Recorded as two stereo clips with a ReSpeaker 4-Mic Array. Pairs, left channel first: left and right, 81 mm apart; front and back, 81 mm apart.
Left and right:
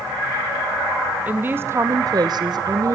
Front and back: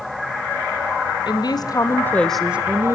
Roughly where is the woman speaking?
Ahead.